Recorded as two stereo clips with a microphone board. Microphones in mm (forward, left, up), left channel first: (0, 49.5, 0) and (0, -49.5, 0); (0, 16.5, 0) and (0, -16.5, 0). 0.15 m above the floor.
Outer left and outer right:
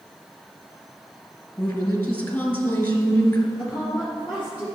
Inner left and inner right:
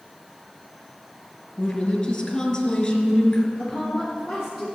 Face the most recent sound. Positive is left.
turn(degrees=-15)  # may be behind; listen again after turning